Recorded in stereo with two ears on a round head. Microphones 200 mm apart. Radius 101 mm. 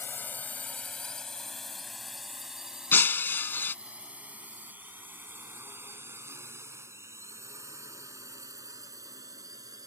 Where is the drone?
10° left (ahead or behind); by 9.9 s 15° right (ahead or behind).